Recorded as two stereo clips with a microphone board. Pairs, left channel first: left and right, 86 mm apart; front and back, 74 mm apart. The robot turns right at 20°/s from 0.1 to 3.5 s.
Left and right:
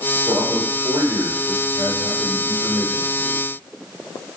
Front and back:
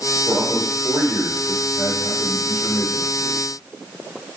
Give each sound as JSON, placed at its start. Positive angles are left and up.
{"t": 0.3, "sound": "a man speaking", "azimuth_deg": -120, "distance_m": 5.0}